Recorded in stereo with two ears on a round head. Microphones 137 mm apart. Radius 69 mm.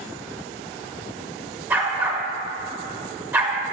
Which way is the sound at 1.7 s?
10° right (ahead or behind).